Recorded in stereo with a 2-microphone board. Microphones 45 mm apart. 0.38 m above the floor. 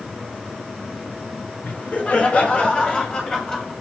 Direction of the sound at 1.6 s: 40° left (ahead or behind).